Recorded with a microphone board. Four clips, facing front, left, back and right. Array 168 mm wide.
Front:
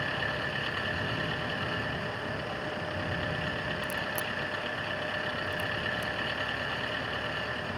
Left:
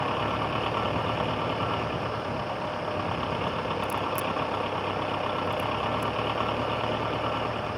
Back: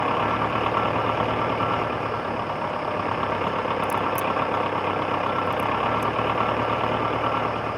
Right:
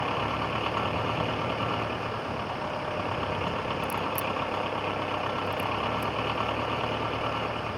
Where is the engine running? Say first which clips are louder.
Left 1 dB, back 11 dB; 175° left.